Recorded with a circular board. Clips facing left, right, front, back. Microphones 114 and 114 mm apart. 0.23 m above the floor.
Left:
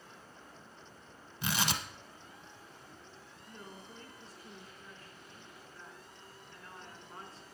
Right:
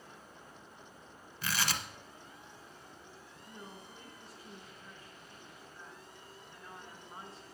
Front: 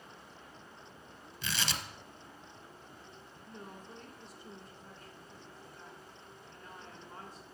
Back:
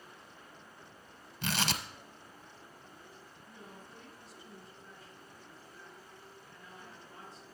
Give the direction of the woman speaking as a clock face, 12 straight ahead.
1 o'clock.